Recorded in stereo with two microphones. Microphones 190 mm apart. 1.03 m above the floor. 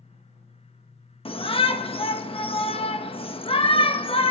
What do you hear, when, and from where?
1.2 s a shout: 30° left (ahead or behind), 1.0 m